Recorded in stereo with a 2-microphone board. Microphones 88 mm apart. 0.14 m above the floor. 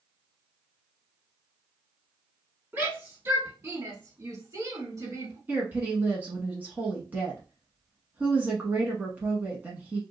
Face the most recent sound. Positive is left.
turn(degrees=-20)  # may be behind; listen again after turning